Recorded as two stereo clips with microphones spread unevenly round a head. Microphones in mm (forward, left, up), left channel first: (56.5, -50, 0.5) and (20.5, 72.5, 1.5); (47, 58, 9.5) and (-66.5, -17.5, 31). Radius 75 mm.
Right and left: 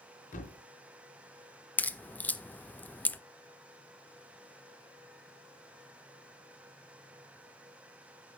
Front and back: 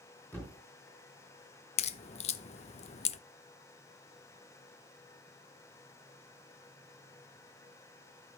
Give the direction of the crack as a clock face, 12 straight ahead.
12 o'clock.